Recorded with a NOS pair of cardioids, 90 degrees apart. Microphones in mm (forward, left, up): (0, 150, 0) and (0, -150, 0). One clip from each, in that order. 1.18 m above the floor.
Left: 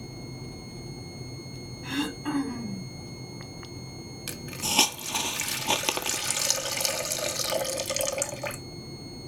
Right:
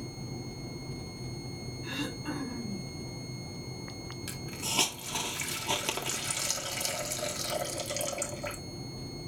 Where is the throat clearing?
40° left, 2.5 m.